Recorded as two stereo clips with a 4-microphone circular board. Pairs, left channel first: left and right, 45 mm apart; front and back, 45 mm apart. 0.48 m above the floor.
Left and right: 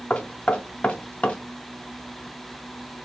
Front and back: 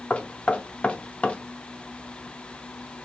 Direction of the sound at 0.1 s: 45° left.